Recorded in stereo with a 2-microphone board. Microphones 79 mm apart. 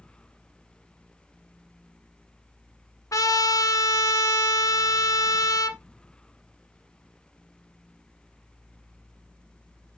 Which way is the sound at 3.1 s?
45° left (ahead or behind).